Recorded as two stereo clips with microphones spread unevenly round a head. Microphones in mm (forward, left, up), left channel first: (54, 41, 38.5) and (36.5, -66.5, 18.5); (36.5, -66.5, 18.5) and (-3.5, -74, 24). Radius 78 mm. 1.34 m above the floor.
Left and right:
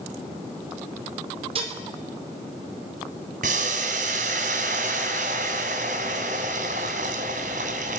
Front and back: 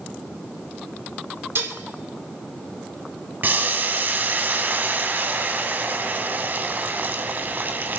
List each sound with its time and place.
1.6 s dishes clattering: 155° right, 2.5 m
3.4 s boiling: 140° right, 2.5 m